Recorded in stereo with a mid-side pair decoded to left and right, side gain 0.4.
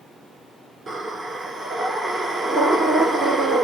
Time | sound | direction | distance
0.9 | breathing | 40° right | 2 m